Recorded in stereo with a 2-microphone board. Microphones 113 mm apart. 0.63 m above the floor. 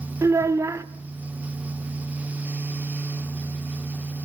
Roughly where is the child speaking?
Right.